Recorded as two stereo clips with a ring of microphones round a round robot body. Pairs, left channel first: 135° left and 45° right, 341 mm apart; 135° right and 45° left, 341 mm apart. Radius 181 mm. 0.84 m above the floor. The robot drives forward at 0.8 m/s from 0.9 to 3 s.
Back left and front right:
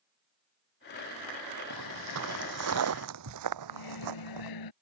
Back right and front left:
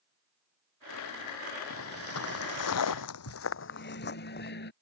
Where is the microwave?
165° left.